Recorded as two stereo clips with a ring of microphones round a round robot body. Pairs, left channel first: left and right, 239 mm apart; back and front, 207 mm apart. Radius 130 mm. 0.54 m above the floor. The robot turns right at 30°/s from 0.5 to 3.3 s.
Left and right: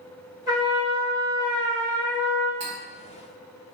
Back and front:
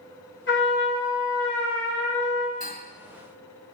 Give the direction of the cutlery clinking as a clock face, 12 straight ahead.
3 o'clock.